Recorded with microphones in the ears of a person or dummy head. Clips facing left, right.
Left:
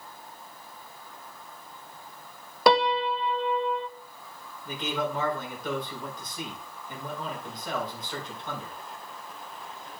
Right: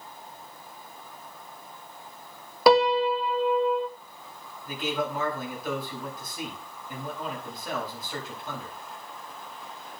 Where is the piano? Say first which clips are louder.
Right 3 dB; centre (ahead or behind), 0.6 m.